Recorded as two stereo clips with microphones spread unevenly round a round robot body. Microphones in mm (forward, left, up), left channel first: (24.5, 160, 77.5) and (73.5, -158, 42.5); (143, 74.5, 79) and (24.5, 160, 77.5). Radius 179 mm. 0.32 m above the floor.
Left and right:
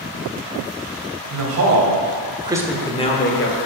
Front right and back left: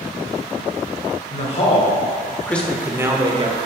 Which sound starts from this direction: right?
A man speaking, at 1.3 s.